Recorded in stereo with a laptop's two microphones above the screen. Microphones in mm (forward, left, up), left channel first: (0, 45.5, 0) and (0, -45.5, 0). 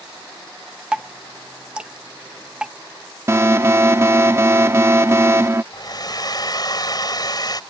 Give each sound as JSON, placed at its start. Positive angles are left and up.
{"t": 0.9, "sound": "dripping", "side_deg": -10}
{"t": 3.3, "sound": "an alarm", "side_deg": -30}
{"t": 5.7, "sound": "a hair dryer", "side_deg": 45}